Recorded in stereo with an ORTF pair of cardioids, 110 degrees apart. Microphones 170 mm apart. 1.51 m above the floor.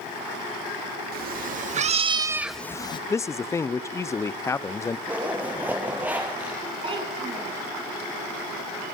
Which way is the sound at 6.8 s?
35° right.